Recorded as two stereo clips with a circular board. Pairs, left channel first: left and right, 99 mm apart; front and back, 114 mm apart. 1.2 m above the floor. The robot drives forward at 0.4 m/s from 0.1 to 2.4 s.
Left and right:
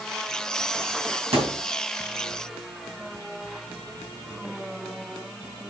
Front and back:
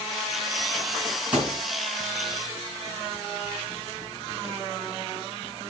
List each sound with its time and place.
1.3 s a thud: 100° right, 5 m; by 1.6 s 105° right, 5 m